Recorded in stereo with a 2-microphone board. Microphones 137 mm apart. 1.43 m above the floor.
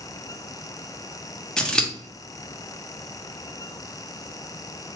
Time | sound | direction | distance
1.6 | scissors | 5° left (ahead or behind) | 1.0 m